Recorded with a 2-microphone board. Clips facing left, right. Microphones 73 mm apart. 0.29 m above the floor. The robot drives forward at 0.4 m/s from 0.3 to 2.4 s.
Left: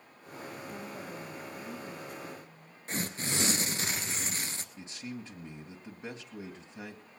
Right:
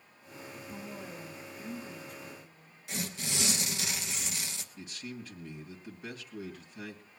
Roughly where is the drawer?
I don't hear a drawer.